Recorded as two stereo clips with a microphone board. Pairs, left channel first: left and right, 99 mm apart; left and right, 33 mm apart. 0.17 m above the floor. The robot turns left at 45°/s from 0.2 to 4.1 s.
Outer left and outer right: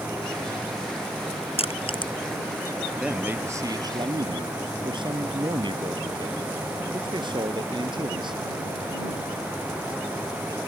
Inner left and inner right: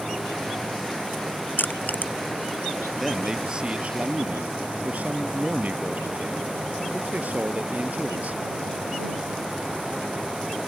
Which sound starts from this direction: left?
Crushing, at 1.6 s.